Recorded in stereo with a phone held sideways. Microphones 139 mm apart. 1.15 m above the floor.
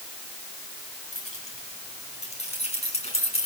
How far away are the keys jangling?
About 6 m.